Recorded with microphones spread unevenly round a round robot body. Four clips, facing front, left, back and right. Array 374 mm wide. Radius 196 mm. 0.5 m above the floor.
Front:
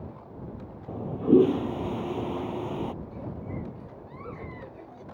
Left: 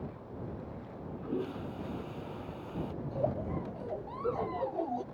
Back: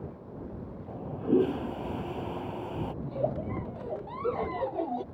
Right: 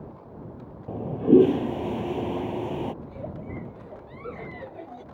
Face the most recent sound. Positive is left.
turn(degrees=155)